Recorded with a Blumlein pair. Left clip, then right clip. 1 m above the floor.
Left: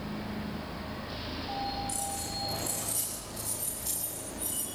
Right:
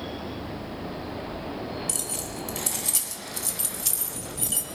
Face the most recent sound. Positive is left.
turn(degrees=-35)